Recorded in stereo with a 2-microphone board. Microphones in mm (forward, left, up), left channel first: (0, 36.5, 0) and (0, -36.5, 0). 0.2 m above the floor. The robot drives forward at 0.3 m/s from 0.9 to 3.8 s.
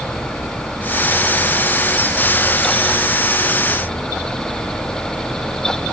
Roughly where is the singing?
No singing in this recording.